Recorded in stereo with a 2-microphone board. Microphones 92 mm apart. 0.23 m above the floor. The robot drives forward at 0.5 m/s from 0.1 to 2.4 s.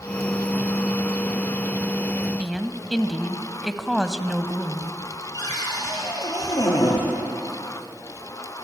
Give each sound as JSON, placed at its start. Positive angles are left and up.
{"t": 2.4, "sound": "a woman speaking", "side_deg": 0, "distance_m": 1.2}
{"t": 5.3, "sound": "a cupboard door", "side_deg": 40, "distance_m": 5.5}